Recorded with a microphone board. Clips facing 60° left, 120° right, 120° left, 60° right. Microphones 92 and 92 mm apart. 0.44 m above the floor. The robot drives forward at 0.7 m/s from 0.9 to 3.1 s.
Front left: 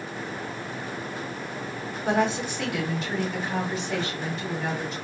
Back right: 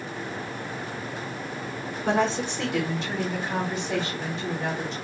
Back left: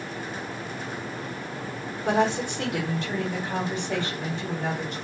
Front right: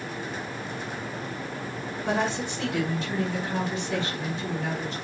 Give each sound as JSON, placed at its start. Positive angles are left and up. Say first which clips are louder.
{"t": 2.0, "sound": "a woman speaking", "louder": "even, back left 4 dB", "azimuth_deg": 170, "distance_m": 1.2}